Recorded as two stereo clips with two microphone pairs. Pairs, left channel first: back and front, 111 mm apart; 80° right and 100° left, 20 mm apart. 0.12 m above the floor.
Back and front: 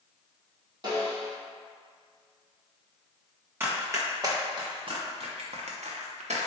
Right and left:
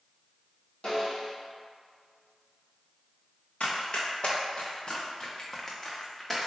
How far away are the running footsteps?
About 1.4 m.